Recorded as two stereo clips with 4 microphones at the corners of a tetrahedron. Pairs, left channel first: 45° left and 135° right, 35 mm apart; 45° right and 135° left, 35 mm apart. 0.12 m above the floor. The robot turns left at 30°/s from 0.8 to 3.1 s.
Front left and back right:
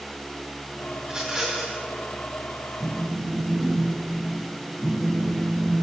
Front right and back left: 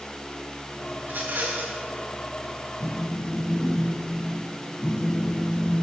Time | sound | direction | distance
1.0 | a rattle | 165° left | 3.5 m
2.8 | a phone buzzing | 35° right | 1.3 m